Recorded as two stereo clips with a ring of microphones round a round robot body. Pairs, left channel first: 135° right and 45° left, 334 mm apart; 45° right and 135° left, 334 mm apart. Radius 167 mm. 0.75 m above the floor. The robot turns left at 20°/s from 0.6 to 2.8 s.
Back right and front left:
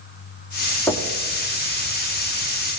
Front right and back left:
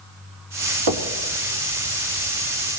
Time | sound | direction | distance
0.9 | knocking | 140° left | 1.3 m